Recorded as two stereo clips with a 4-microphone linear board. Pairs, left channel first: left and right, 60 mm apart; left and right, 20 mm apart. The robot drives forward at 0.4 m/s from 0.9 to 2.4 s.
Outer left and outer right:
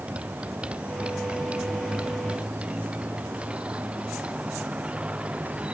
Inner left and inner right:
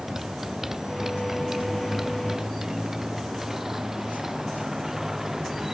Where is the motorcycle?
20° right (ahead or behind); by 5.7 s 15° right (ahead or behind).